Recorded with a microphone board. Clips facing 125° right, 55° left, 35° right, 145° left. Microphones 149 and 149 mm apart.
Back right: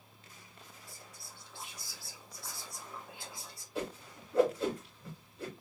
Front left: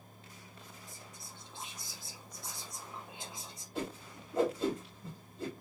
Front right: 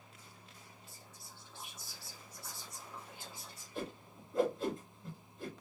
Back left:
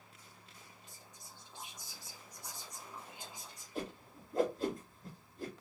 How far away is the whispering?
About 1.2 m.